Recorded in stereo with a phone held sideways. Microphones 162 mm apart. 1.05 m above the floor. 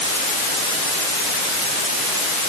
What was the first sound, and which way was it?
Only background noise.